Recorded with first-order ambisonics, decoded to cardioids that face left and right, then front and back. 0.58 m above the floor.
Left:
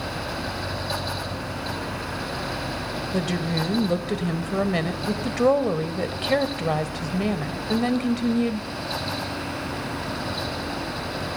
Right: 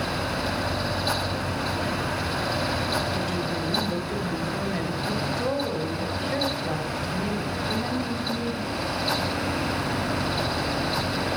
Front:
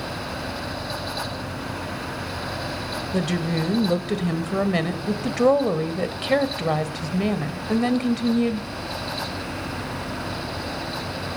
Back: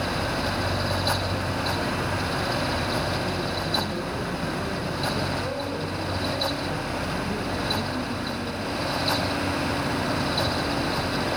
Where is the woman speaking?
35° left, 2.5 m.